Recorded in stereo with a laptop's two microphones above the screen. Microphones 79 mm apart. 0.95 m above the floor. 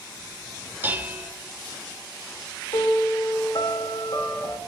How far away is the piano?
About 2.5 m.